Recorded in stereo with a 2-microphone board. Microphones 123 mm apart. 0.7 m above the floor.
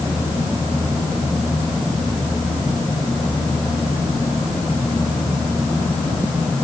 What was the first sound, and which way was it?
Only background noise.